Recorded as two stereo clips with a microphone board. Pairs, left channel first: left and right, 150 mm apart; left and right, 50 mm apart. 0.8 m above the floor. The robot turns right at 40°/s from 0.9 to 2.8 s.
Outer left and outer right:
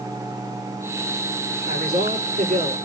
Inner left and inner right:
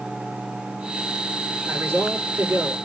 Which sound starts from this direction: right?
A man speaking, at 1.6 s.